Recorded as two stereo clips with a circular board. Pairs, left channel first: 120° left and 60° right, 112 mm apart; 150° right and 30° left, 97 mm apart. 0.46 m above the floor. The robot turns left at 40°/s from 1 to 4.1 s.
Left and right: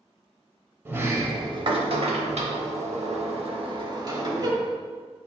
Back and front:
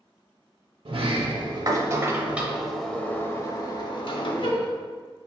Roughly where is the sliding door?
Ahead.